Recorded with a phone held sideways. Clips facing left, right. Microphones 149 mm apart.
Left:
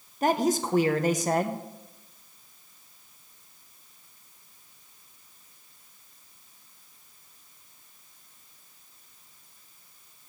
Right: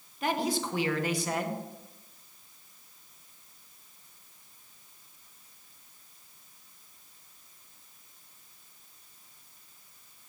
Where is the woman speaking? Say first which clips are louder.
Left 6 dB; 45° left (ahead or behind), 1.0 m.